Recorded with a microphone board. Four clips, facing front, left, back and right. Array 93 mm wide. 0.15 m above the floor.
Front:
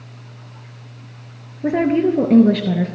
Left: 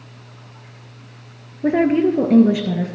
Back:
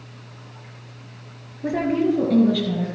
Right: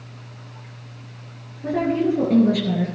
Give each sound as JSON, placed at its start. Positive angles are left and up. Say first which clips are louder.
{"t": 1.6, "sound": "a woman speaking", "louder": "left 5 dB, front 4 dB", "azimuth_deg": 60, "distance_m": 2.0}